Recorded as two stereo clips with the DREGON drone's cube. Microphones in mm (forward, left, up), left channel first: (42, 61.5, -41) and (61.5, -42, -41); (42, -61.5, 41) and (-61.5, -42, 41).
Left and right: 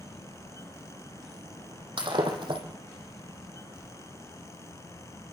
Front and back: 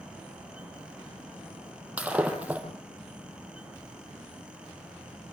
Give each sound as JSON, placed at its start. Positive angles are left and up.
{"t": 2.0, "sound": "breaking glass", "azimuth_deg": -115, "distance_m": 6.0}